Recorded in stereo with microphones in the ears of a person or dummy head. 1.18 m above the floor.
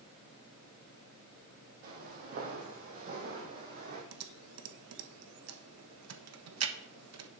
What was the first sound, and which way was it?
Footsteps, 45° right (ahead or behind).